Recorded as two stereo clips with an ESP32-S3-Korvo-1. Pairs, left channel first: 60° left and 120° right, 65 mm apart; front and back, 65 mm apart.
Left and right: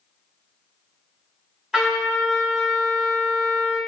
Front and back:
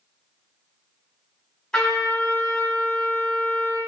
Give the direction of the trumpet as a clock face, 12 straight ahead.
2 o'clock.